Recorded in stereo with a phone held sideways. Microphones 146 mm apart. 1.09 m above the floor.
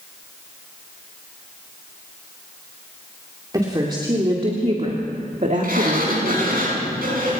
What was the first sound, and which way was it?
A woman speaking, 25° right (ahead or behind).